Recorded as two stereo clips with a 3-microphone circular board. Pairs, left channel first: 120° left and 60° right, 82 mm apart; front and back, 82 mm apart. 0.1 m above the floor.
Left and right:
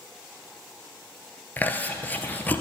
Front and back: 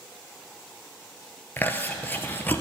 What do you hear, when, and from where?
1.6 s chewing: 60° left, 1.0 m